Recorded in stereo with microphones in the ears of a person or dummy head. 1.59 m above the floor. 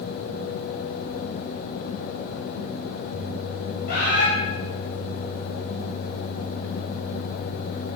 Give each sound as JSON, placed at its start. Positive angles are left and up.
{"t": 3.9, "sound": "a bird", "side_deg": 55, "distance_m": 7.5}